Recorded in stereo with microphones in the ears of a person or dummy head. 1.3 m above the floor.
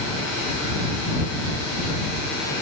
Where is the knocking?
No knocking in this recording.